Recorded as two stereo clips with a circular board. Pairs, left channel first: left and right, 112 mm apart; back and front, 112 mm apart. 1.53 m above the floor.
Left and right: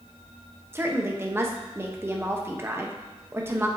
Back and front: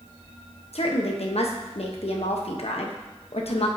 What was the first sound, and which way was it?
A woman speaking, 160° right.